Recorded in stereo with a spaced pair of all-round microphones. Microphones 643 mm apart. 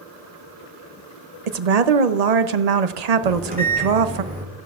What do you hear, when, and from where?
1.5 s a woman speaking: 75° right (ahead or behind), 0.8 m
3.2 s a microwave: 15° right (ahead or behind), 2.5 m